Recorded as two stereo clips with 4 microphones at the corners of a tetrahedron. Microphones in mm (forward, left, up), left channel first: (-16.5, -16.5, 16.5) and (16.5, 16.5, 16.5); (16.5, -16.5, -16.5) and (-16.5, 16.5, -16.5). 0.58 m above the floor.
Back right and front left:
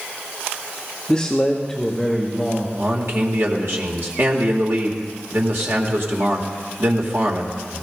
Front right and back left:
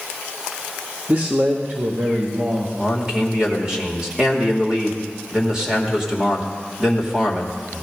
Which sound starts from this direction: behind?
A man speaking, at 1.1 s.